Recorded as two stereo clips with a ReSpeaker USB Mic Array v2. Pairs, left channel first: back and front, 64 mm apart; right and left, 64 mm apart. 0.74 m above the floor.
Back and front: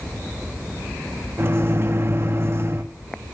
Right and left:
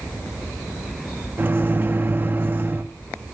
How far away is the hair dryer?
No hair dryer in this recording.